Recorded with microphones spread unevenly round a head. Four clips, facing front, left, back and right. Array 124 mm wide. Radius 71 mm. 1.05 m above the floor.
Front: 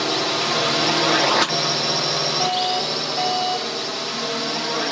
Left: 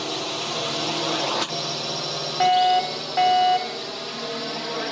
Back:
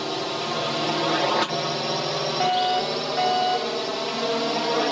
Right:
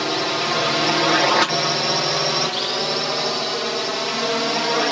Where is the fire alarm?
75° left.